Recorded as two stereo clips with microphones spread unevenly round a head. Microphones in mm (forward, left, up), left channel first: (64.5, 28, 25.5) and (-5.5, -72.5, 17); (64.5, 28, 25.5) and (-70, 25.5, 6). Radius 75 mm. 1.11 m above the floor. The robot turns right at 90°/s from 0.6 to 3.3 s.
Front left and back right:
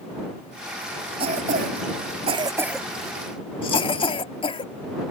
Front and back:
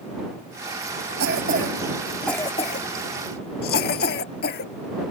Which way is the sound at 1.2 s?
Straight behind.